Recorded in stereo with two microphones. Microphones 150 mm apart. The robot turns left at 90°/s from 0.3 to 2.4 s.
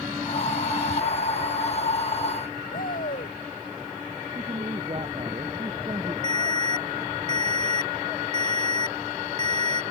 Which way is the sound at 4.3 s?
35° right (ahead or behind).